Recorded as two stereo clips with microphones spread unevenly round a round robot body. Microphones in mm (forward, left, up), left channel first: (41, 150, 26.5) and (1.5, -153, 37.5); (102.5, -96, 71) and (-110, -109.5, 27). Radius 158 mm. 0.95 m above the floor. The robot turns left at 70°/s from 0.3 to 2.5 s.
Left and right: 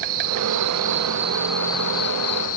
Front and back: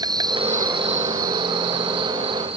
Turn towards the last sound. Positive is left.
turn(degrees=105)